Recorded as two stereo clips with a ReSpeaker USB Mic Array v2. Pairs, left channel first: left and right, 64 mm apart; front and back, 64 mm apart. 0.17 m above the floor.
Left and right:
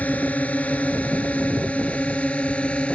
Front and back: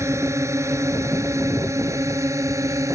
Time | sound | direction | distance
0.0 | a drone | 155° left | ?